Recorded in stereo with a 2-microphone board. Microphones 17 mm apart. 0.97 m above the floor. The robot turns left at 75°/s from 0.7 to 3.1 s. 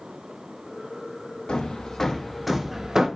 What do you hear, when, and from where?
1.5 s hammering: 75° left (ahead or behind), 0.6 m; by 3.1 s 40° right (ahead or behind), 0.6 m